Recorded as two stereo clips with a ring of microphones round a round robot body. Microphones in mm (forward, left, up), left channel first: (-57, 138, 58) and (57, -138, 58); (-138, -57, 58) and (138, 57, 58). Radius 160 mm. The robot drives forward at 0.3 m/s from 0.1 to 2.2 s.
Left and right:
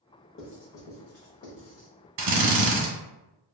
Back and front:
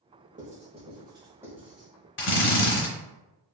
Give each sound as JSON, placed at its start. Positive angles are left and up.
{"t": 0.4, "sound": "writing", "azimuth_deg": 80, "distance_m": 1.1}
{"t": 2.2, "sound": "a drill", "azimuth_deg": -110, "distance_m": 0.9}